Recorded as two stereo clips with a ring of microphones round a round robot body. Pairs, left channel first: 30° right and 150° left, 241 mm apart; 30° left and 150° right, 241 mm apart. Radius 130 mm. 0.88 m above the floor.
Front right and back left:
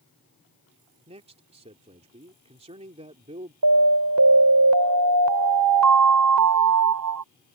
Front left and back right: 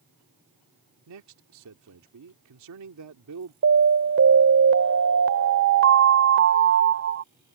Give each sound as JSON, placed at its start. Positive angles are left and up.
{"t": 1.1, "sound": "a man speaking", "azimuth_deg": -145}
{"t": 3.6, "sound": "an alarm", "azimuth_deg": 170}